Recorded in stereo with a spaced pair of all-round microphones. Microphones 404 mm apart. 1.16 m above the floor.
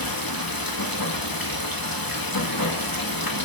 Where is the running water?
55° left (ahead or behind), 1.6 m.